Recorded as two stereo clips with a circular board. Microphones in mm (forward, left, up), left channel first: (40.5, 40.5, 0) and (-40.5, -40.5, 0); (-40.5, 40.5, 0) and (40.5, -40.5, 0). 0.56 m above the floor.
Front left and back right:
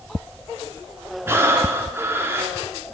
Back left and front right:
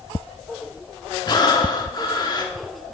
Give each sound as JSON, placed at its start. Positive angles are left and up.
{"t": 1.3, "sound": "breathing", "azimuth_deg": 165, "distance_m": 0.6}